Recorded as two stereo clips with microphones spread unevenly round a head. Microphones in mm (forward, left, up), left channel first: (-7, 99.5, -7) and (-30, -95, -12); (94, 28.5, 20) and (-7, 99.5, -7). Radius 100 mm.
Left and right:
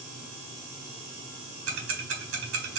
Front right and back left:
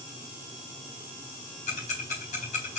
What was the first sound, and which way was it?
Ticking, 70° right.